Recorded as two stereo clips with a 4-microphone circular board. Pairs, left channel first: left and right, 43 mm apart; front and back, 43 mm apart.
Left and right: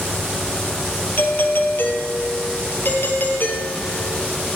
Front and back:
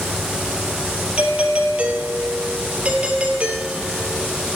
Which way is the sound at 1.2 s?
120° left.